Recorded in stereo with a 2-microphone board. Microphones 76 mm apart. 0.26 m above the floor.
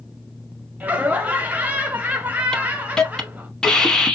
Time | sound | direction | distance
0.8 | laughter | 20° right (ahead or behind) | 1.0 m
2.5 | a hiss | 10° left (ahead or behind) | 0.7 m